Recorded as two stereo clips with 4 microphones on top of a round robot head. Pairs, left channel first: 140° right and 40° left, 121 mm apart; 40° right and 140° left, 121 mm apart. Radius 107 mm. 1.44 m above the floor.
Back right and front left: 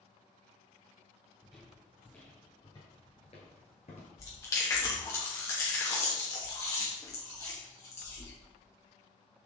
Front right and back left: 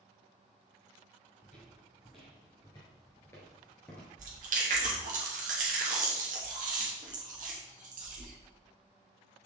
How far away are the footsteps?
About 1.6 m.